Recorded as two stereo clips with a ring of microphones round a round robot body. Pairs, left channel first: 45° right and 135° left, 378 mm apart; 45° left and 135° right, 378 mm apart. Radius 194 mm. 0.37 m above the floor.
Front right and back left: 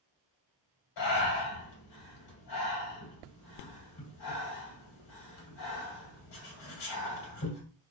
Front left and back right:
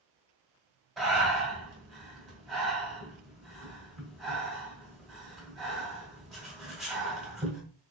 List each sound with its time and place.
1.0 s breathing: 45° right, 2.5 m